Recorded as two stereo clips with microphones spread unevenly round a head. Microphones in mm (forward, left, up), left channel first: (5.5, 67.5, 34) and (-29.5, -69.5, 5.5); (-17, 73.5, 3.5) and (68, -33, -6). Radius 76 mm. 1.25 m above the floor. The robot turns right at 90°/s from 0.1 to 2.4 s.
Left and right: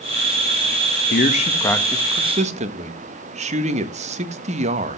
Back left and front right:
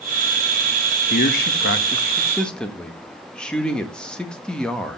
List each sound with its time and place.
1.1 s a man speaking: 95° left, 1.6 m; by 5.0 s 145° right, 1.6 m